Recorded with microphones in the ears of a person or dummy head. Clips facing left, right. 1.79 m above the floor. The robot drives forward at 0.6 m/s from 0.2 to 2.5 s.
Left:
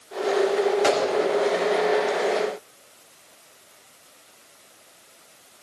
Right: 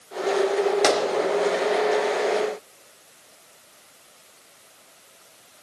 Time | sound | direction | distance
0.8 | a gunshot | 60° right (ahead or behind) | 2.5 m